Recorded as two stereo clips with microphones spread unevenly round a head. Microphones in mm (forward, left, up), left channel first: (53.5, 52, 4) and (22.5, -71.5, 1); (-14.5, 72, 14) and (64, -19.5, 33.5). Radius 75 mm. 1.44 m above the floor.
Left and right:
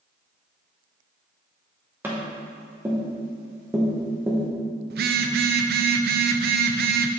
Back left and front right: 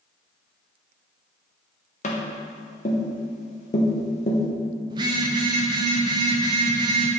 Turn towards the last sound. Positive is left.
turn(degrees=-110)